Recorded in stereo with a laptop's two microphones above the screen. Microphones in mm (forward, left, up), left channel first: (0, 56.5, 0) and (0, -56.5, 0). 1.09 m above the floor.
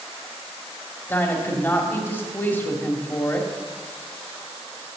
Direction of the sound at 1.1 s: 20° left (ahead or behind).